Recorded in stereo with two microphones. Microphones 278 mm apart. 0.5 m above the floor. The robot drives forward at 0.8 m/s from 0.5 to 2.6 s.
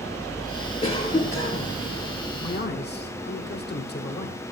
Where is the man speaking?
35° left (ahead or behind), 1.3 m.